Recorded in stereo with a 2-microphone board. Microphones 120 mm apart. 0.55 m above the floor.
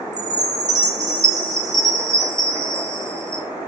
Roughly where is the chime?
Right.